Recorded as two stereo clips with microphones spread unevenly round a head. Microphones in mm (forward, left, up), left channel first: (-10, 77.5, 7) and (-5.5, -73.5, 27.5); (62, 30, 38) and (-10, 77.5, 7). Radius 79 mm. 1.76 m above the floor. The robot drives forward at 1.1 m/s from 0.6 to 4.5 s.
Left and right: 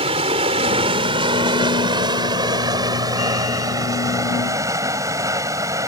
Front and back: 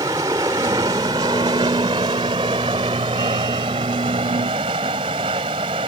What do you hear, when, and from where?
0.0 s running water: 140° right; by 5.9 s 160° right